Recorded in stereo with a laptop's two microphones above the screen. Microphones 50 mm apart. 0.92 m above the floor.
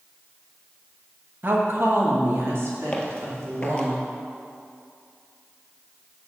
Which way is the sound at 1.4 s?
50° right (ahead or behind).